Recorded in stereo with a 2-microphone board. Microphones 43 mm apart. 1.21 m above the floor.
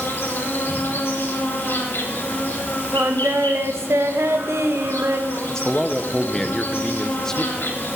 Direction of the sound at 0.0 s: 60° left (ahead or behind).